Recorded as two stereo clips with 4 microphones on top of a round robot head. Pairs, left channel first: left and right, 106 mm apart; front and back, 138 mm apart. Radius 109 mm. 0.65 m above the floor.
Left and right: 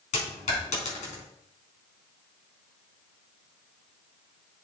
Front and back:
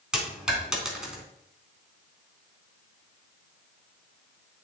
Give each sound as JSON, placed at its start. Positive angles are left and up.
{"t": 0.1, "sound": "a dropped coin", "azimuth_deg": 95, "distance_m": 3.0}